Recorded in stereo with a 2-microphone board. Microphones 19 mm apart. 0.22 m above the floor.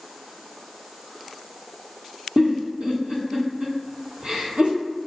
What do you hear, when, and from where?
2.4 s a giggle: 90° right, 1.1 m